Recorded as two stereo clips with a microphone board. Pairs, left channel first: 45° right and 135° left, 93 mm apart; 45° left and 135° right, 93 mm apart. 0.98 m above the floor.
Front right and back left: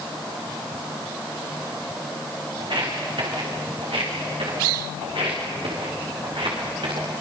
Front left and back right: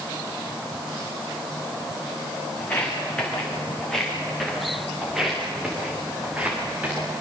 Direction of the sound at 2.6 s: 120° left.